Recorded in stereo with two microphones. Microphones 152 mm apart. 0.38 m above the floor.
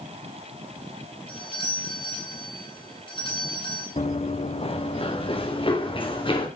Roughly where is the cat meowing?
No cat meowing in this recording.